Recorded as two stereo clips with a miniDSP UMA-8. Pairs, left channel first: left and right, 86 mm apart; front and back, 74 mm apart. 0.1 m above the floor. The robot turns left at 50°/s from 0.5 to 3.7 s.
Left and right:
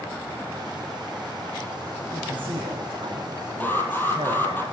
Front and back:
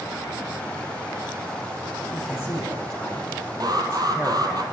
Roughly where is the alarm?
Behind.